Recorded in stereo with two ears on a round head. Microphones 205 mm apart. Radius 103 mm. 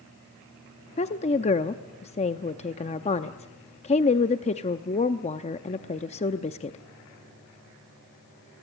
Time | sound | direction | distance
1.0 | a woman speaking | 30° left (ahead or behind) | 0.6 m